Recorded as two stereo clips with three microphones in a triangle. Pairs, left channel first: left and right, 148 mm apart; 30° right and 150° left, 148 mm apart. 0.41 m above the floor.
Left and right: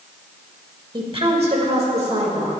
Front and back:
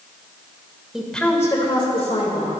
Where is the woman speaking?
125° right, 1.7 m; by 2.5 s 50° right, 2.5 m.